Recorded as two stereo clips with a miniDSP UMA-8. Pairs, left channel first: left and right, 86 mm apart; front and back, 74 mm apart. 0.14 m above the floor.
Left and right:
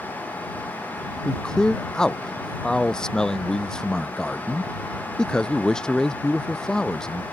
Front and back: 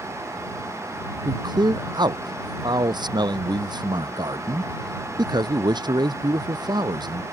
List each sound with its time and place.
1.2 s a man speaking: 170° left